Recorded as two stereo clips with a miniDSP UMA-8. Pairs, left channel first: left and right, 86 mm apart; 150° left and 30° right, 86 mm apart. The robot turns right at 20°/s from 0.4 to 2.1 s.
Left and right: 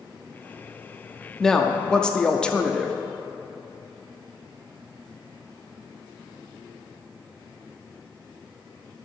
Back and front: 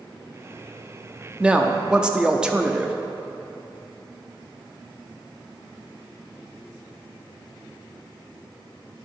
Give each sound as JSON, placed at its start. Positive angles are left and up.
{"t": 1.4, "sound": "a woman speaking", "azimuth_deg": 20, "distance_m": 0.5}